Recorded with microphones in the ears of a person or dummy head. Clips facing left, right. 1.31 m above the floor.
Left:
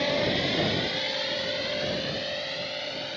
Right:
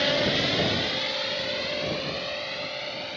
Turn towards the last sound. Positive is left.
turn(degrees=15)  # may be behind; listen again after turning